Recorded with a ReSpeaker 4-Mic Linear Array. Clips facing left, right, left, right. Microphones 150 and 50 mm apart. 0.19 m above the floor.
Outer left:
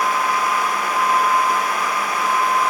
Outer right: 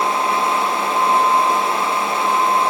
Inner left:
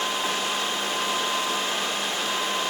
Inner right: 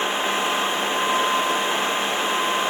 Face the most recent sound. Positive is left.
No sound to turn to.